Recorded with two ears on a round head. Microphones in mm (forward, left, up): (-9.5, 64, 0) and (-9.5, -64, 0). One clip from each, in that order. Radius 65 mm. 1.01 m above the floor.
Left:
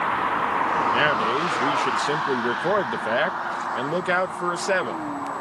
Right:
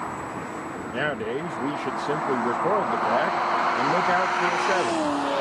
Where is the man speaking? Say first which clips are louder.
Left 7 dB; 55° left (ahead or behind).